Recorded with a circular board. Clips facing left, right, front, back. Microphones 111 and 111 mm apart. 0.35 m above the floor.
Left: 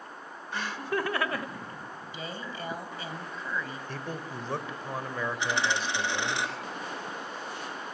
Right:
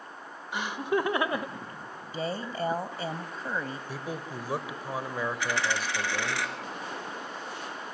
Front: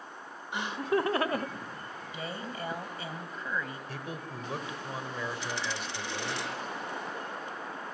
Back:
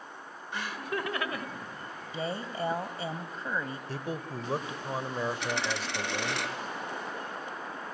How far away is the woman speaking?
About 1.7 m.